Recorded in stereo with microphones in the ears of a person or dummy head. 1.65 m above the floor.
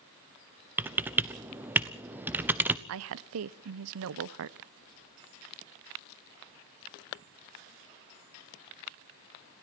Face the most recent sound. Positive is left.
turn(degrees=-65)  # may be behind; listen again after turning